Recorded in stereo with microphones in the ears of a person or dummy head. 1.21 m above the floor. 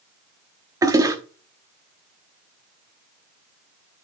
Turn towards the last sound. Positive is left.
turn(degrees=-15)  # may be behind; listen again after turning